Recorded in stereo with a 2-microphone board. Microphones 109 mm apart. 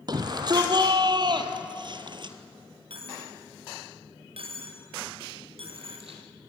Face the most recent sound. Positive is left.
turn(degrees=-65)  # may be behind; listen again after turning